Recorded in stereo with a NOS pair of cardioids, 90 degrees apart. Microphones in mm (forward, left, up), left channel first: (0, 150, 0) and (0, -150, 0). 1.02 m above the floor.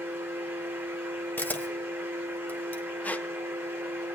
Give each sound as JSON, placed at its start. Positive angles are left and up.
{"t": 0.0, "sound": "a fan", "azimuth_deg": -10, "distance_m": 1.2}
{"t": 1.4, "sound": "a camera shutter", "azimuth_deg": 5, "distance_m": 1.2}
{"t": 3.0, "sound": "a squeak", "azimuth_deg": 5, "distance_m": 0.5}